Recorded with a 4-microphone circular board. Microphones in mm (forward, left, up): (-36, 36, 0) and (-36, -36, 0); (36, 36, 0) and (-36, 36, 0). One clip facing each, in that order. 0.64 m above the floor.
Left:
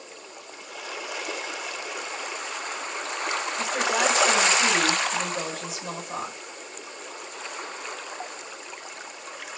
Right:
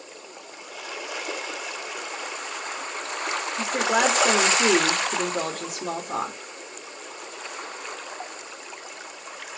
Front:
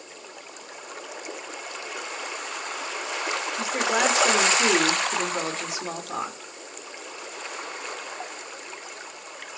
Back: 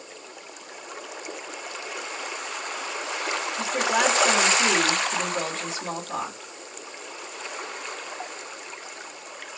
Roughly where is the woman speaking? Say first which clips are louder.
Right 3 dB, back 1 dB; right.